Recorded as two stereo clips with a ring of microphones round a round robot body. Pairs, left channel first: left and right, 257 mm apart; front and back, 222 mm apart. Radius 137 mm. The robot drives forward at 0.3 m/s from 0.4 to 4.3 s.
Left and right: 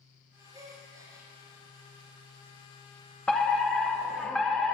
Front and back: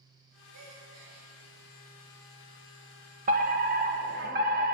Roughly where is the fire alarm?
Behind.